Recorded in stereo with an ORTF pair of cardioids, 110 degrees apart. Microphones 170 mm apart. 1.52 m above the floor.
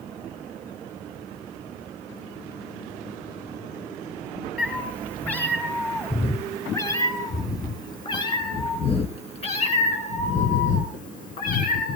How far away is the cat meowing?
About 5.5 m.